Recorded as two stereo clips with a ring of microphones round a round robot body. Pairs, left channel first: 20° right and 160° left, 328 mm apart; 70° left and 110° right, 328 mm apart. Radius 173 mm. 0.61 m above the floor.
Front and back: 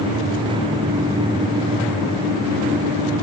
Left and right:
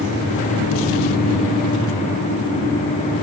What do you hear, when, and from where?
Only background noise.